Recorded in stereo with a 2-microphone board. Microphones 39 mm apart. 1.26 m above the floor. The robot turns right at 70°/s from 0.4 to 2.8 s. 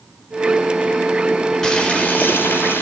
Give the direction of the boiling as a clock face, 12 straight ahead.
12 o'clock.